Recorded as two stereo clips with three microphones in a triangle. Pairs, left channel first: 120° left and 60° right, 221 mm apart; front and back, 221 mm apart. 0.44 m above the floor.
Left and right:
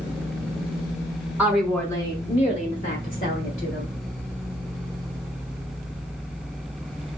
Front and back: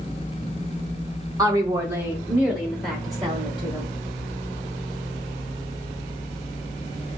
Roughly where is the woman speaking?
Behind right.